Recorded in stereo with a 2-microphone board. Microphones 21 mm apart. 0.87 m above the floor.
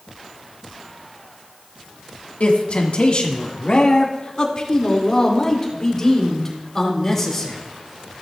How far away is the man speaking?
About 1.7 m.